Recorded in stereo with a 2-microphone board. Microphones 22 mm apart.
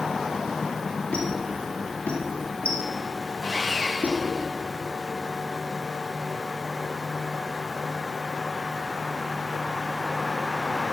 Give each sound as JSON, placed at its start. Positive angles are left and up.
{"t": 1.1, "sound": "a squeak", "side_deg": 85, "distance_m": 2.0}
{"t": 3.4, "sound": "sawing", "side_deg": -25, "distance_m": 1.8}